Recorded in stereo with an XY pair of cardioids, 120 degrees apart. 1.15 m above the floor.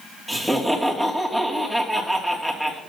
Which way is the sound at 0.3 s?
Straight ahead.